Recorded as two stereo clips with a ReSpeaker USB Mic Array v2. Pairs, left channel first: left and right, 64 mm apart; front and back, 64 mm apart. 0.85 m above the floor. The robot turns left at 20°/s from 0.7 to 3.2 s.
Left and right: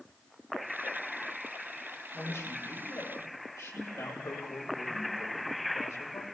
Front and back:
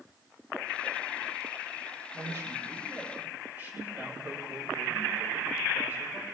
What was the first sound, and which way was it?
A man speaking, 140° left.